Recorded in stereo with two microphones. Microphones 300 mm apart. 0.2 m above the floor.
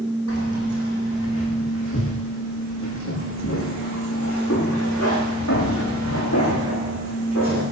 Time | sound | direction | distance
0.3 | keys jangling | 55° left (ahead or behind) | 8.5 m